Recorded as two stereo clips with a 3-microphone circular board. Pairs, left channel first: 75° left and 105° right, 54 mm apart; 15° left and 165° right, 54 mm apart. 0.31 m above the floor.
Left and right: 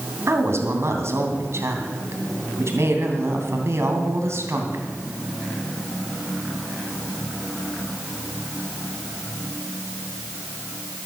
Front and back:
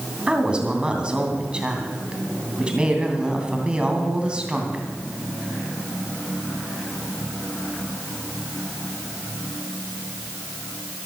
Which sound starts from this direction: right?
A woman speaking, at 0.3 s.